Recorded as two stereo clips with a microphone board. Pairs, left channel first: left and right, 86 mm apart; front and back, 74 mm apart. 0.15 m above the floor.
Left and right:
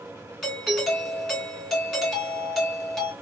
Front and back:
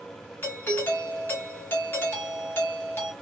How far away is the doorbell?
About 2 m.